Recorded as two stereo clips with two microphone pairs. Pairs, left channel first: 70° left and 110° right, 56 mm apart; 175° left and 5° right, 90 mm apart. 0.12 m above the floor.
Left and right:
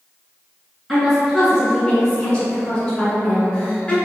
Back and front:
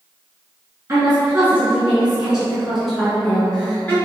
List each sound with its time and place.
0.9 s a woman speaking: 25° right, 1.7 m; by 4.0 s 120° left, 1.8 m